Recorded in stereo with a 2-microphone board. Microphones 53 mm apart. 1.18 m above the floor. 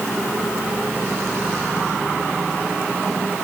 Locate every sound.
Only background noise.